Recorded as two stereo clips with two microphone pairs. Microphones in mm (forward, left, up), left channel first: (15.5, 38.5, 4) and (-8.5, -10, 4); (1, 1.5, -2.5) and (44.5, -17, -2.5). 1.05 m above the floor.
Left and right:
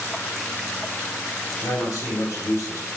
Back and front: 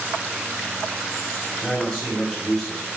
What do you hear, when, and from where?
1.6 s a man speaking: 80° left, 5 m